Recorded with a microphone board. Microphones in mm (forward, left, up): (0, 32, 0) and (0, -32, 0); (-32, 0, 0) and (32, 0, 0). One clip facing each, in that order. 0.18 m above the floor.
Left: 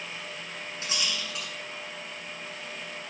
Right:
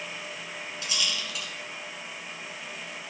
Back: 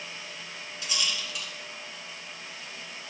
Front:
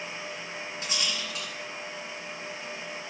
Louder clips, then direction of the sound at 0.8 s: Even, back 1 dB; 40° left.